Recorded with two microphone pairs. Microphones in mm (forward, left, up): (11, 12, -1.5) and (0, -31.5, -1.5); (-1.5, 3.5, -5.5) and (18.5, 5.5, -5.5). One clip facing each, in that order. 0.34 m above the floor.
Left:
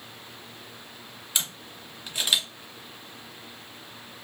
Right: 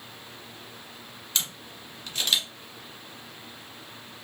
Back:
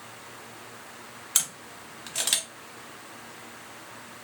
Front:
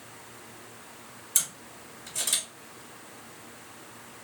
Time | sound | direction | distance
1.4 | a camera shutter | 150° left | 0.7 m